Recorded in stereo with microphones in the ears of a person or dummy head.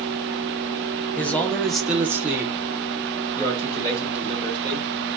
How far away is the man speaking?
About 0.8 m.